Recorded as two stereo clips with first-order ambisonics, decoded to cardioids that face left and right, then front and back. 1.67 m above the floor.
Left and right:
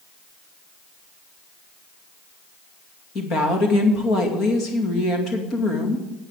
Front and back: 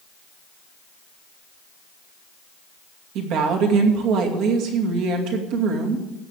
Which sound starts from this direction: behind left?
A woman speaking, at 3.1 s.